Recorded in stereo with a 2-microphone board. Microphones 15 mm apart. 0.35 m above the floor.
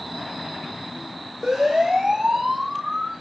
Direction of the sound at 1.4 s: 80° right.